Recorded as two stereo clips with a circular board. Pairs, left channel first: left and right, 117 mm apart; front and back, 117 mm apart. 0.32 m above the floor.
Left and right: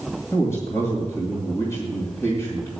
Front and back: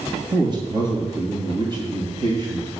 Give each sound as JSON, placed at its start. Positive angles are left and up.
{"t": 0.3, "sound": "a man speaking", "azimuth_deg": 150, "distance_m": 2.0}